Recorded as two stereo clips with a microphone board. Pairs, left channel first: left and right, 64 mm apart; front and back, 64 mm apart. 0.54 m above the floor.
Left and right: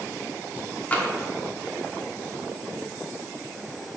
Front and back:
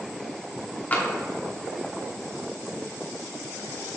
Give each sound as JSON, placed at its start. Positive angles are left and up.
{"t": 0.9, "sound": "tapping", "azimuth_deg": 45, "distance_m": 1.0}